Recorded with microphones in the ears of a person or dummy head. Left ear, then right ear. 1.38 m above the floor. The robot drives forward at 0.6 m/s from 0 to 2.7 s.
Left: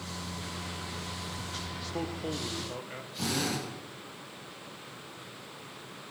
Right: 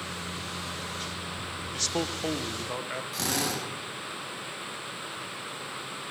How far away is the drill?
About 5.5 m.